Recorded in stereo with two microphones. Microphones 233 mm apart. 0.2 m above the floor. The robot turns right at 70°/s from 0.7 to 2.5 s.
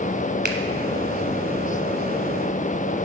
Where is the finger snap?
45° right (ahead or behind), 1.3 m.